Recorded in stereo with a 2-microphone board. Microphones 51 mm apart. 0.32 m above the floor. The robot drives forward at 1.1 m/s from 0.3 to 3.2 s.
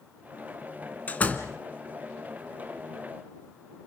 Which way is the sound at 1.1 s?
30° left (ahead or behind).